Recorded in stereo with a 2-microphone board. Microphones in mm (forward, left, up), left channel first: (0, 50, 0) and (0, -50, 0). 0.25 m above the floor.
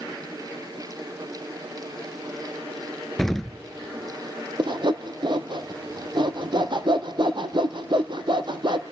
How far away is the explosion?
About 0.5 m.